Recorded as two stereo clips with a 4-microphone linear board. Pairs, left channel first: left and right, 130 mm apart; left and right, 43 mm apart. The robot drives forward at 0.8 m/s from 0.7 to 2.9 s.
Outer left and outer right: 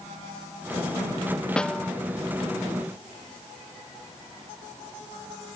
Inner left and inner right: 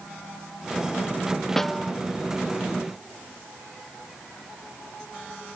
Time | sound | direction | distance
1.6 | a snare drum | 5° left (ahead or behind) | ?